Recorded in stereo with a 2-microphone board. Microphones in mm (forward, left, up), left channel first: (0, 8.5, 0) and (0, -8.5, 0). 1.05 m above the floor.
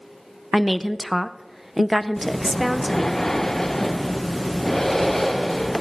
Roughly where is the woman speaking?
Centre.